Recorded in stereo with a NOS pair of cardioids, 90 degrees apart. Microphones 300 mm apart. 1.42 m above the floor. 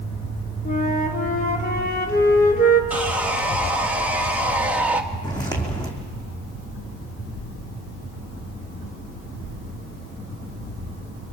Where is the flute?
30° left, 3.5 m.